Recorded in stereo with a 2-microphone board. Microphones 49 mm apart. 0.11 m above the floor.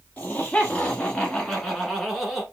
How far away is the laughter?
About 1.3 m.